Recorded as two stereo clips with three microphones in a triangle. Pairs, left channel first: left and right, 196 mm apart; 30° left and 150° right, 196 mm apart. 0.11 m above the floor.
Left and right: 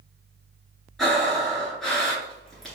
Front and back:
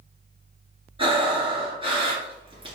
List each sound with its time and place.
1.0 s breathing: straight behind, 1.8 m